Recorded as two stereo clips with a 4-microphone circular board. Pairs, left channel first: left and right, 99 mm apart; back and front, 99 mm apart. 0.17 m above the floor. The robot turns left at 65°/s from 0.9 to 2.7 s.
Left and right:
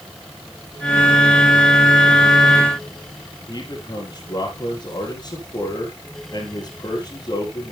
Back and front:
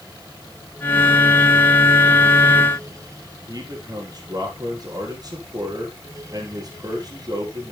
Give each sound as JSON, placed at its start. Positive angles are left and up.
{"t": 3.5, "sound": "a man speaking", "azimuth_deg": 45, "distance_m": 4.0}